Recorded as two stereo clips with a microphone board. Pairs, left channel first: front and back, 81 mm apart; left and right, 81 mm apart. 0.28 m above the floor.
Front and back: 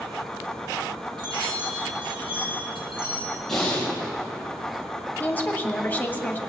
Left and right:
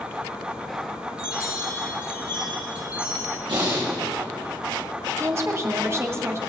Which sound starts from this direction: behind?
A chime, at 1.2 s.